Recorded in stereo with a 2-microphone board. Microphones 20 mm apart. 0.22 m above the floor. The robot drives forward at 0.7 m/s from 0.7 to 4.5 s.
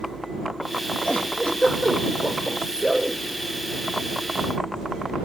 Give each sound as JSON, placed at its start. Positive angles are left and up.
{"t": 1.1, "sound": "a giggle", "side_deg": 80, "distance_m": 9.0}